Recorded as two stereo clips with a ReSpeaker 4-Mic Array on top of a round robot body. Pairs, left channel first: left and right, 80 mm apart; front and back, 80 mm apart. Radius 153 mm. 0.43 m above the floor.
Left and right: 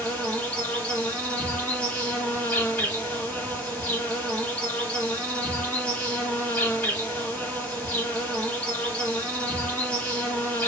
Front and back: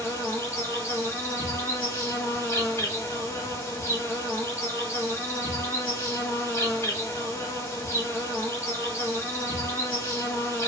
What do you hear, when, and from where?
0.0 s an insect: 25° left, 1.5 m